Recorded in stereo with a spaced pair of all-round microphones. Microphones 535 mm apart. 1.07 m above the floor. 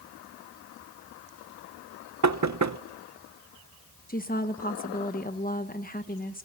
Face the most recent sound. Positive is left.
turn(degrees=15)  # may be behind; listen again after turning